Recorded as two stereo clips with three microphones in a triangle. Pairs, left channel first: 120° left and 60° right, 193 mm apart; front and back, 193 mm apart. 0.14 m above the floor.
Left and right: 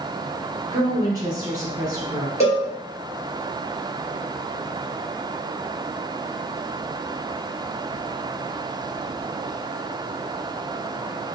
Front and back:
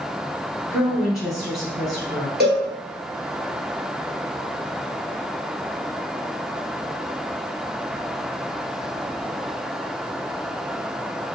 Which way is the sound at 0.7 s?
95° right.